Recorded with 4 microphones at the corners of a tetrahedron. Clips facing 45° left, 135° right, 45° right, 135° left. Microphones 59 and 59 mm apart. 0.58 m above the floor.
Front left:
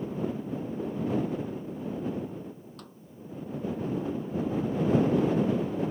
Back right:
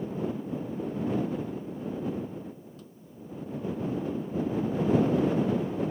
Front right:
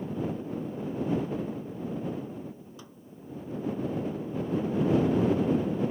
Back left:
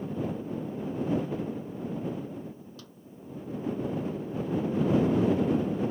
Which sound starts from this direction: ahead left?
A snare drum, at 2.8 s.